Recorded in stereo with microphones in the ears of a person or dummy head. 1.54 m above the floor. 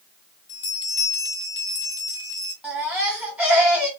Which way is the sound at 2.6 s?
5° right (ahead or behind).